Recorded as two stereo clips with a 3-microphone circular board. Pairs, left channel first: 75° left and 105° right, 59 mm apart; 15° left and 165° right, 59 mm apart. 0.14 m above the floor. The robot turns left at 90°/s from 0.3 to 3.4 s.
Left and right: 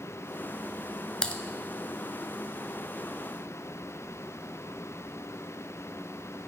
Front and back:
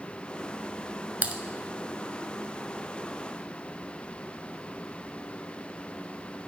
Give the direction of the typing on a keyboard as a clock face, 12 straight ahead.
7 o'clock.